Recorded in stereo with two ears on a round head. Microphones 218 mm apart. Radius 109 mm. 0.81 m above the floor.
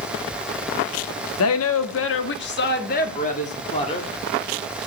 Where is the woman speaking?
65° left (ahead or behind), 1.3 m; by 4.1 s 25° left (ahead or behind), 2 m.